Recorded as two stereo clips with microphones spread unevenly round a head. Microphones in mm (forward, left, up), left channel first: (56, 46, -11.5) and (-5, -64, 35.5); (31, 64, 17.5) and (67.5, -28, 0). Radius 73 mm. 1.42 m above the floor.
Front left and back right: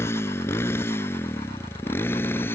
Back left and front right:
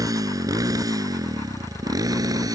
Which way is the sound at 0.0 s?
10° right.